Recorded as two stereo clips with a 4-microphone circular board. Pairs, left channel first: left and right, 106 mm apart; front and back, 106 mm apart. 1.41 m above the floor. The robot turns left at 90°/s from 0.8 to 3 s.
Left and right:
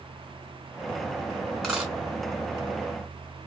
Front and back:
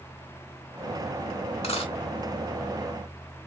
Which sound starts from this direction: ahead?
A dropped coin, at 1.6 s.